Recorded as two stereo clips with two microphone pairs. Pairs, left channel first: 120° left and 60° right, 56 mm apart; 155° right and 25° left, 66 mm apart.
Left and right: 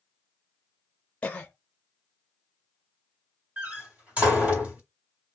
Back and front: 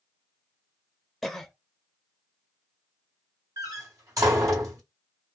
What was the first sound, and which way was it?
A cough, 115° left.